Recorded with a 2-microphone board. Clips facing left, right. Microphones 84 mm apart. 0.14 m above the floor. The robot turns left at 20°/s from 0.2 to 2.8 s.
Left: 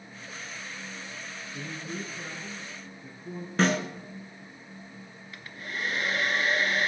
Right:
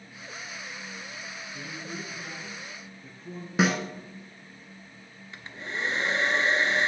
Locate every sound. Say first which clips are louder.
1.5 s a man speaking: left 3 dB; 30° left (ahead or behind), 1.4 m; by 3.5 s 10° left (ahead or behind), 1.4 m
3.6 s a snare drum: even; 10° right (ahead or behind), 1.3 m
5.3 s a hair dryer: right 2 dB; 30° right (ahead or behind), 0.8 m